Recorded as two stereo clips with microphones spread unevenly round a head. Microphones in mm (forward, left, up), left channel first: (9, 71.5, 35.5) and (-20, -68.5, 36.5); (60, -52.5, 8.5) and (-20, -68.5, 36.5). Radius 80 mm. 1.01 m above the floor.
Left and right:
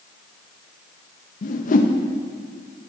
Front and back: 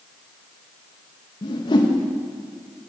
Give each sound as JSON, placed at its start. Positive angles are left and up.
{"t": 1.4, "sound": "a whoosh", "azimuth_deg": 45, "distance_m": 0.6}